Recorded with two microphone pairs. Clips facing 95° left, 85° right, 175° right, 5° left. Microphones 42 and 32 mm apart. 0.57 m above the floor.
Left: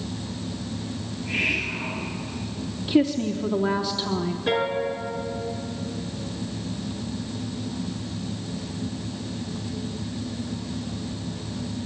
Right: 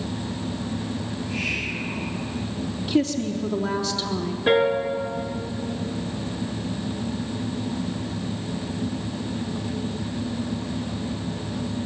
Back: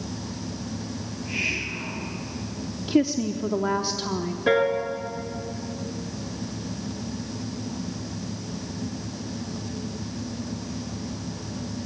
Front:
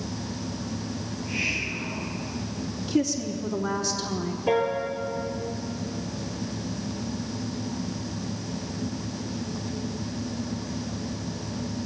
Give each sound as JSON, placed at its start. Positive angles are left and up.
{"t": 1.1, "sound": "a hiss", "azimuth_deg": 135, "distance_m": 9.0}
{"t": 2.9, "sound": "a woman speaking", "azimuth_deg": 160, "distance_m": 1.0}
{"t": 4.5, "sound": "a piano", "azimuth_deg": -150, "distance_m": 3.5}